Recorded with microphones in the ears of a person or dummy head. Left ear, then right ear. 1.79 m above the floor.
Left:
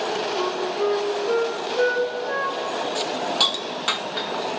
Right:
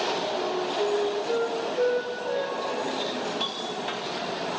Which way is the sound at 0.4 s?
60° left (ahead or behind).